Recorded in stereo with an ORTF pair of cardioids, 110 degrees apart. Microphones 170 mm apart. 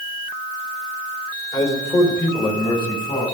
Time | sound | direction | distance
1.5 | a man speaking | 35° left | 4 m